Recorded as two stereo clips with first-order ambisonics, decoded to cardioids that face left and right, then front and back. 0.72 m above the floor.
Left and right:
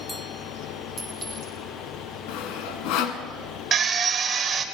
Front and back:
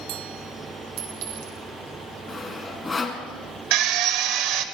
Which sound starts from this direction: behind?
A clink, at 1.0 s.